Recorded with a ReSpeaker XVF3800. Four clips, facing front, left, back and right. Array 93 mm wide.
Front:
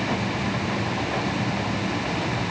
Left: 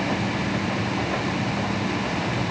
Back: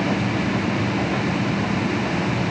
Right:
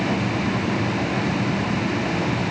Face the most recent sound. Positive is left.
No sound to turn to.